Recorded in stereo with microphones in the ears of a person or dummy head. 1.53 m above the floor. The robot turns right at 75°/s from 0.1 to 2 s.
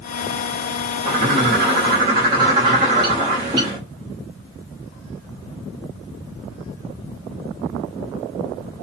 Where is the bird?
125° right, 1.1 m; by 3.8 s 50° right, 1.1 m.